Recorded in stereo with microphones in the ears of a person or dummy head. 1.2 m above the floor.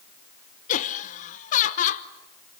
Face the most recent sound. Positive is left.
turn(degrees=45)  # may be behind; listen again after turning